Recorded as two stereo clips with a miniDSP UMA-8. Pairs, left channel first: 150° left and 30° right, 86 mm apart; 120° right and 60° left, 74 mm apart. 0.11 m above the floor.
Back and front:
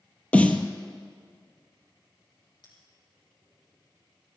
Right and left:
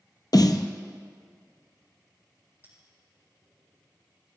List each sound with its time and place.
0.3 s a snare drum: 135° right, 0.9 m
2.6 s a bell: 115° left, 4.5 m